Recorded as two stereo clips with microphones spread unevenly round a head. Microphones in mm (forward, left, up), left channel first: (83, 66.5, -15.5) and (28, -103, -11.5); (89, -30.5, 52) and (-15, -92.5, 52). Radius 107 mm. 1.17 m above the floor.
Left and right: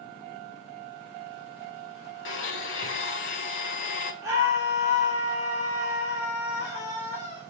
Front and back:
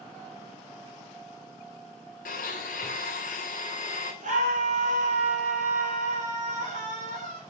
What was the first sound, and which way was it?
A blender, 65° left.